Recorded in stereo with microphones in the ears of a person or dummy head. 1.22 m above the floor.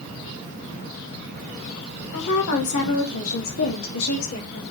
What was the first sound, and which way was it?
A woman speaking, 60° left (ahead or behind).